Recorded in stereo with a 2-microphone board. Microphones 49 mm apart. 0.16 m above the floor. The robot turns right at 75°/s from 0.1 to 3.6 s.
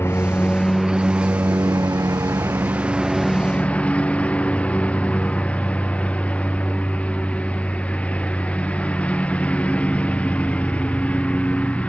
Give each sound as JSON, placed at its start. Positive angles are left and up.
{"t": 0.0, "sound": "a lawn mower", "azimuth_deg": 125}